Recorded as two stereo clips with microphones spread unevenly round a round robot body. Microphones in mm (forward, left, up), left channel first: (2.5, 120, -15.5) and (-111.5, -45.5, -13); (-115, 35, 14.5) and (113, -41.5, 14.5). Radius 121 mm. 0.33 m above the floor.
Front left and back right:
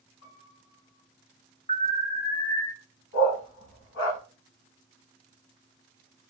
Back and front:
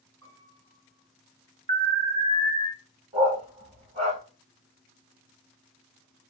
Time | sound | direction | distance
0.2 | a piano | 5° right | 2 m
1.7 | an alarm | 10° left | 0.7 m
3.1 | a dog barking | 45° left | 0.9 m